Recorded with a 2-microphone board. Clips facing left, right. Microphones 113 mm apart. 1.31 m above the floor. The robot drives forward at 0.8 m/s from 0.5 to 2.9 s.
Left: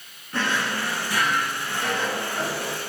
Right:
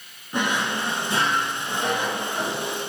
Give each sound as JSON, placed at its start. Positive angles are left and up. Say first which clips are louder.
{"t": 0.3, "sound": "a drawer", "louder": "right 1 dB", "side_deg": -15, "distance_m": 0.9}